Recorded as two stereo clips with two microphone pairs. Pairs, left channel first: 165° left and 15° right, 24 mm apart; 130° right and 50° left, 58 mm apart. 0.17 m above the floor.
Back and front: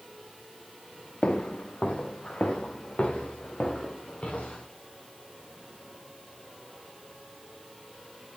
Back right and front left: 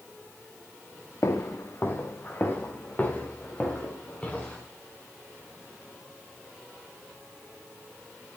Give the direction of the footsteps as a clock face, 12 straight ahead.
6 o'clock.